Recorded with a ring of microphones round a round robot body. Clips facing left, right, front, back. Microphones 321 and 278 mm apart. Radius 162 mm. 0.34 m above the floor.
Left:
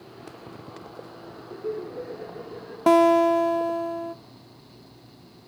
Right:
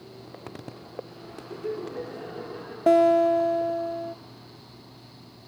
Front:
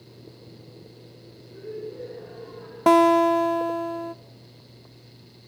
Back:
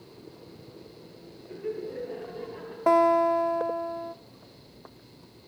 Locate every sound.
1.5 s laughter: 145° right, 6.5 m; by 2.8 s 150° right, 6 m
2.9 s a guitar: 25° left, 0.5 m